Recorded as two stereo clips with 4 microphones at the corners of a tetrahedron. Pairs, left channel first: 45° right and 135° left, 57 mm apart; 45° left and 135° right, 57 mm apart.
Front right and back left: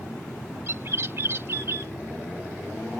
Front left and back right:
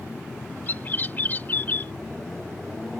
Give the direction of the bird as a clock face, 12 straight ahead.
9 o'clock.